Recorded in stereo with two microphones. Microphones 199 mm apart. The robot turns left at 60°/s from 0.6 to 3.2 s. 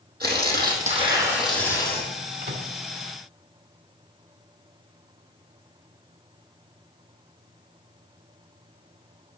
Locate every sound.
0.2 s tearing paper: 130° right, 4 m; by 2.1 s 145° left, 4 m
2.4 s a microwave: 60° right (ahead or behind), 1.9 m; by 2.7 s 65° right (ahead or behind), 1.9 m